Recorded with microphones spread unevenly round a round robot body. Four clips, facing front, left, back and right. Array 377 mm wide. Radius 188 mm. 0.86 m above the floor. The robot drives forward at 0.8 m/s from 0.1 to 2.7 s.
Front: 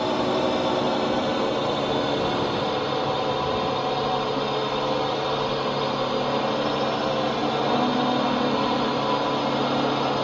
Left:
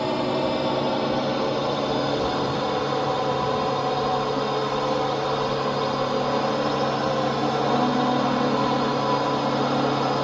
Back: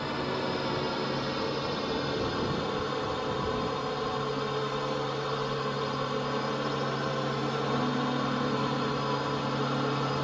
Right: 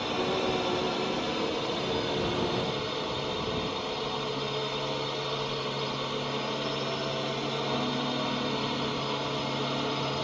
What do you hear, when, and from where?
0.0 s a drone: 40° left; by 10.3 s 55° left